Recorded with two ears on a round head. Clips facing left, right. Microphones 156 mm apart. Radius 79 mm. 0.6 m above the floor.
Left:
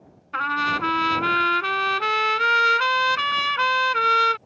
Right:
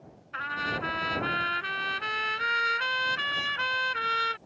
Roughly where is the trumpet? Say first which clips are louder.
Left 8 dB; left.